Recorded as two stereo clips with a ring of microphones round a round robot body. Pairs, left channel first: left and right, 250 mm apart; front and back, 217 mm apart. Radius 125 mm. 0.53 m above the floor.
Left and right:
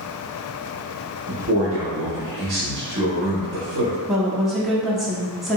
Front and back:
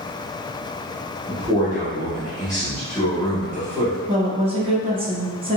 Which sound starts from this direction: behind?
A woman speaking, at 4.1 s.